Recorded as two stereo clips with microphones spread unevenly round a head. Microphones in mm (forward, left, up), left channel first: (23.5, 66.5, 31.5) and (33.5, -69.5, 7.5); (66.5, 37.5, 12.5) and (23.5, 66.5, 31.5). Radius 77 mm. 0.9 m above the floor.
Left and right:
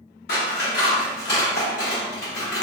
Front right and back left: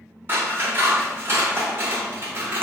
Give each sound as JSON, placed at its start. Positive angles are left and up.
{"t": 0.3, "sound": "scissors", "azimuth_deg": 110, "distance_m": 1.1}